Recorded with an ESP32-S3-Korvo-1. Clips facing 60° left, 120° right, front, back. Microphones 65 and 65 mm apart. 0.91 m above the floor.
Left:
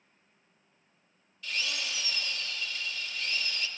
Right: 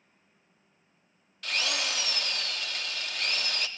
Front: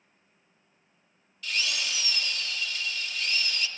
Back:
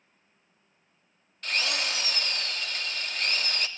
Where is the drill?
140° right, 0.8 m.